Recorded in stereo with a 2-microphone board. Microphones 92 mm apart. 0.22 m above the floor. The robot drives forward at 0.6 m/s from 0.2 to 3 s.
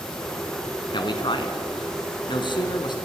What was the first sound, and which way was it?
A man speaking, 55° left (ahead or behind).